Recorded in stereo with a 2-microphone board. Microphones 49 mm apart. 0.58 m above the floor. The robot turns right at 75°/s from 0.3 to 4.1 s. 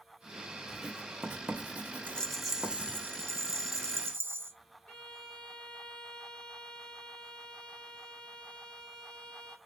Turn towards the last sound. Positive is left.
turn(degrees=15)  # may be behind; listen again after turning